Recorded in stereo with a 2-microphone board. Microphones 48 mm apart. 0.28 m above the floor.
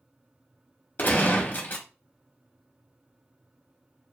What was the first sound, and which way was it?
A gunshot, 45° left (ahead or behind).